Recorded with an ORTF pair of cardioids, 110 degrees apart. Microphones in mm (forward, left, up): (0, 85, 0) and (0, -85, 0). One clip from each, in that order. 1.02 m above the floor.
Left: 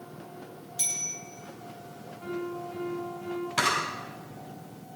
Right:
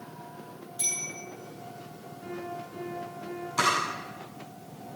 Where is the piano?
70° left, 7 m.